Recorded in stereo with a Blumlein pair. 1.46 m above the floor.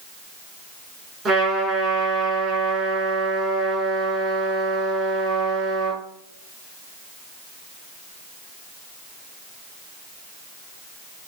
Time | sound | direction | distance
1.2 | a trumpet | 15° right | 5.5 m